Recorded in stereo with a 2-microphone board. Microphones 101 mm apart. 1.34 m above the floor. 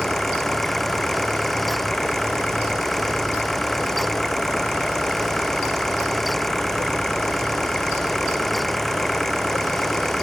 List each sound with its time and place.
0.0 s an engine running: 5° left (ahead or behind)